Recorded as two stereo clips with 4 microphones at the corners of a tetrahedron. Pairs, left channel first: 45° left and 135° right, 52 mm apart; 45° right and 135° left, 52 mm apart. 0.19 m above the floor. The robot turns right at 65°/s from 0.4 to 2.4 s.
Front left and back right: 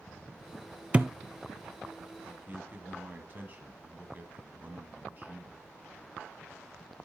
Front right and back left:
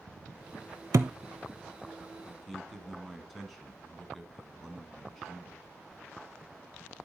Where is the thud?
160° left, 0.6 m; by 1.1 s 170° left, 0.6 m.